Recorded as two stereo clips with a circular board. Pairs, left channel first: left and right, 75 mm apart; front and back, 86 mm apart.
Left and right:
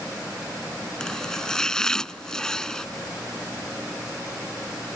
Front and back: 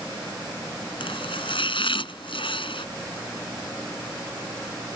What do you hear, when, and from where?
1.0 s chopping: 10° left